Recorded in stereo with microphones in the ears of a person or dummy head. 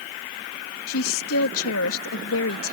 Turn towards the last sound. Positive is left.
turn(degrees=75)  # may be behind; listen again after turning